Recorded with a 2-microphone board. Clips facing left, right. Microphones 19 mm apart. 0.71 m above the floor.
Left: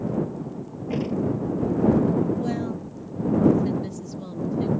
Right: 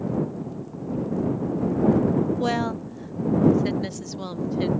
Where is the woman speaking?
35° right (ahead or behind).